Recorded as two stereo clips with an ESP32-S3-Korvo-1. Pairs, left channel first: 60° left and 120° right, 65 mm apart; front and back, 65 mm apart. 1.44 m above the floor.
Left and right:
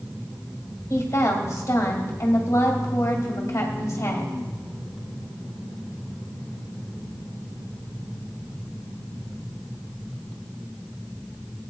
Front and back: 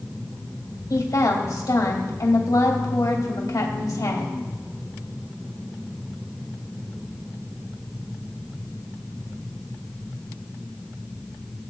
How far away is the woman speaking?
About 2.5 m.